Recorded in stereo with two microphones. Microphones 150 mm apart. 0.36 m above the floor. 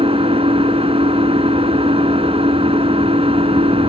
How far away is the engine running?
About 1.1 m.